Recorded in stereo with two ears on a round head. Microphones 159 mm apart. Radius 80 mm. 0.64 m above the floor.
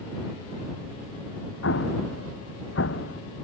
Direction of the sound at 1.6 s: 85° left.